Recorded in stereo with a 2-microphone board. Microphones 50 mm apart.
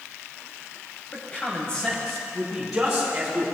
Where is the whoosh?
No whoosh in this recording.